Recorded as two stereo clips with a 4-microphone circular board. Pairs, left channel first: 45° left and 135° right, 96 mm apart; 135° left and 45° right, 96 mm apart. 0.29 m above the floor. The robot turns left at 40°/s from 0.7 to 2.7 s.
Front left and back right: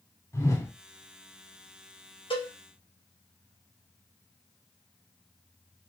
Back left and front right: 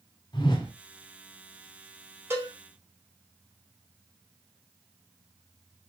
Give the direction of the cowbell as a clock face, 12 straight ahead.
11 o'clock.